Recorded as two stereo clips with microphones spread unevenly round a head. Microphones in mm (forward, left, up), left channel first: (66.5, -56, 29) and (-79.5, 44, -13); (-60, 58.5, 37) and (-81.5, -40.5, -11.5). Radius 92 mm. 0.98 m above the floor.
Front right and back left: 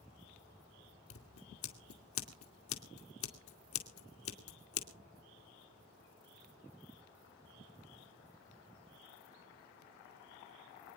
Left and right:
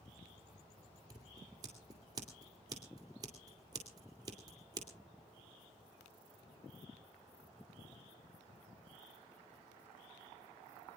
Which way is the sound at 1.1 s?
40° right.